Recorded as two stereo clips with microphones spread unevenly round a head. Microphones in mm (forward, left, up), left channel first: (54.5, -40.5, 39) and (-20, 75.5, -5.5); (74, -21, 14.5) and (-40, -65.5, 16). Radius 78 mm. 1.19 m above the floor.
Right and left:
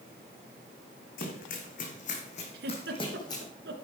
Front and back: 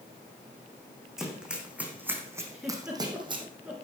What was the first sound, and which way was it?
Running footsteps, 75° right.